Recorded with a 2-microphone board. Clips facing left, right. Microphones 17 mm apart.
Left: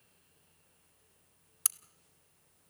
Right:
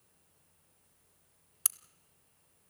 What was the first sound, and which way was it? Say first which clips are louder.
A crack: even; 10° left (ahead or behind).